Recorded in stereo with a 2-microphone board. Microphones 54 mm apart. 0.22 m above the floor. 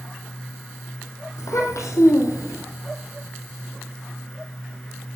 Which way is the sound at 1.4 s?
75° left (ahead or behind).